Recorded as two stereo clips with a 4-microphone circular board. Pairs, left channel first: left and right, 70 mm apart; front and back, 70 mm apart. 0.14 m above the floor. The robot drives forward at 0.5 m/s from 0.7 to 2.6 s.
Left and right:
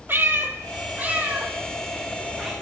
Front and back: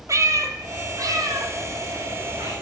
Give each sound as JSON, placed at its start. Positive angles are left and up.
{"t": 0.1, "sound": "a cat meowing", "azimuth_deg": -145, "distance_m": 0.5}